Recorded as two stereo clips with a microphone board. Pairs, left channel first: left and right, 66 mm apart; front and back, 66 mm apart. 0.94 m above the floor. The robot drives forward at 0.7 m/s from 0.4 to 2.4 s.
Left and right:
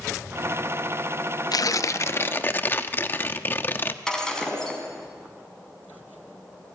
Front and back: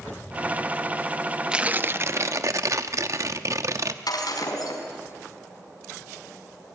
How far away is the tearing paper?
About 0.5 m.